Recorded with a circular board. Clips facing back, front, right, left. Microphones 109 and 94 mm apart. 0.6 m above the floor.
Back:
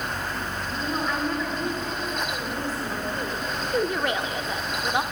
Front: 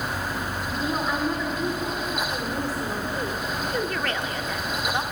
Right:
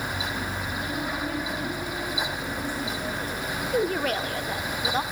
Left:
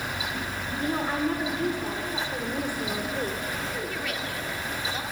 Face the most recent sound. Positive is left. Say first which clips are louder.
# back 5 dB, right 7 dB
turn(degrees=-110)